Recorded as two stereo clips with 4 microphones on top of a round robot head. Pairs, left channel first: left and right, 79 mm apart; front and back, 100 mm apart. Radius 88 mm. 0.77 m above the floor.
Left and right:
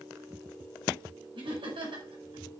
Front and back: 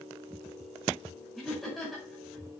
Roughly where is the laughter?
Right.